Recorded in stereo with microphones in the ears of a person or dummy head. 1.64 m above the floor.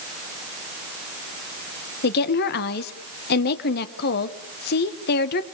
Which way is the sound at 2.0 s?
60° left (ahead or behind).